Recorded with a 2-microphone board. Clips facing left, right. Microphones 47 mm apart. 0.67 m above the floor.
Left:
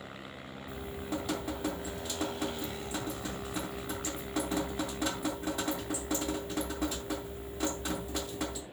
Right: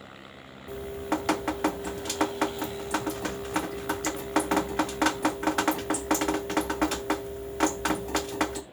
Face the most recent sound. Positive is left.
turn(degrees=-65)  # may be behind; listen again after turning